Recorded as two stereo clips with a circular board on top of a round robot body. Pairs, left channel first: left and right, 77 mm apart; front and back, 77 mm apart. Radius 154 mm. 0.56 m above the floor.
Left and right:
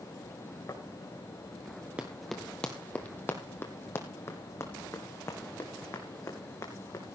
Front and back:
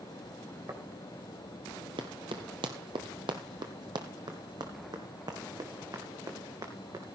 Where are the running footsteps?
165° right, 0.7 m; by 7.0 s 140° left, 3 m.